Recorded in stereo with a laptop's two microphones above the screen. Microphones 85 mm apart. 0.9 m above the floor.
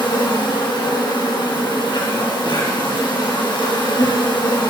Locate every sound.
0.0 s an insect: 65° left (ahead or behind), 2.0 m